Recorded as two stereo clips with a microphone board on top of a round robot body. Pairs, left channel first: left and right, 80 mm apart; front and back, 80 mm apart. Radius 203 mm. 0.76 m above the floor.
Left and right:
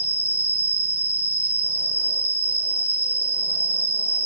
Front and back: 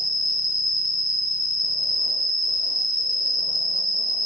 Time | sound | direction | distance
0.0 | an insect | 25° right | 2 m